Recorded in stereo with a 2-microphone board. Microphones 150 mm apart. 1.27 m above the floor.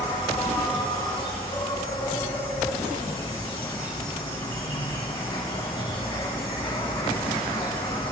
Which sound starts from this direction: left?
An insect, at 0.0 s.